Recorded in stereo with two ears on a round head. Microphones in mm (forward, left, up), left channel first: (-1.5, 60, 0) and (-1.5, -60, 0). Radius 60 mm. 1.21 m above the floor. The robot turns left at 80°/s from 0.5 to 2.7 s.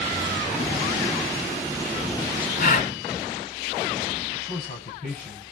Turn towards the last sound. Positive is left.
turn(degrees=55)  # may be behind; listen again after turning